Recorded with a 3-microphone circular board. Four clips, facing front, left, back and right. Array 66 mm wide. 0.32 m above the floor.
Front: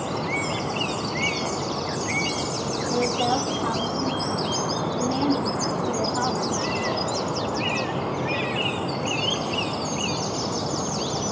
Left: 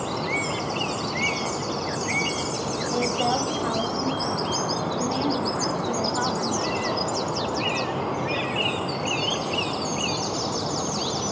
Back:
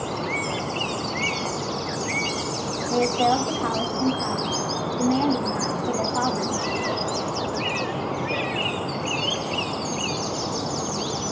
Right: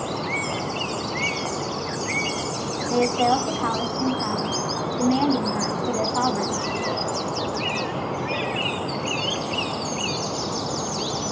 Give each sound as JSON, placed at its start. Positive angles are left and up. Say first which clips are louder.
{"t": 2.9, "sound": "a woman speaking", "louder": "right 5 dB, back 3 dB", "azimuth_deg": -110, "distance_m": 3.0}